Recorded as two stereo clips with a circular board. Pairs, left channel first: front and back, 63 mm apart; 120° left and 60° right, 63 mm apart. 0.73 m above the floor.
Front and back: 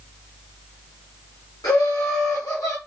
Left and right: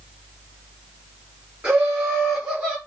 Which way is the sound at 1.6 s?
5° left.